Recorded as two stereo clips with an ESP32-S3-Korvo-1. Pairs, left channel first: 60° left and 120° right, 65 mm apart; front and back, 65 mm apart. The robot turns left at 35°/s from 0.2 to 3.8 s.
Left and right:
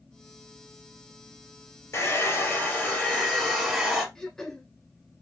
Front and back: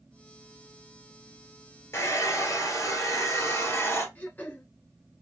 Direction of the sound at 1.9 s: 35° left.